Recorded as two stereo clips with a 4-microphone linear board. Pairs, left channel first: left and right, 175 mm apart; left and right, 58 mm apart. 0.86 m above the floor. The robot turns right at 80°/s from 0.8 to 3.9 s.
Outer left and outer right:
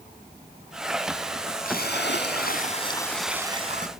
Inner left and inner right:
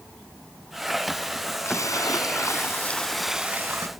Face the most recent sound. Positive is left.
turn(degrees=-125)